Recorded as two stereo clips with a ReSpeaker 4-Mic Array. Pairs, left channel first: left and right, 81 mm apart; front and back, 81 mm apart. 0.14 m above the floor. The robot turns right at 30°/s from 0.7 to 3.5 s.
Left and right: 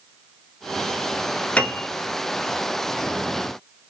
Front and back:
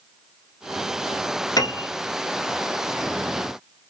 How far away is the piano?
About 1.4 m.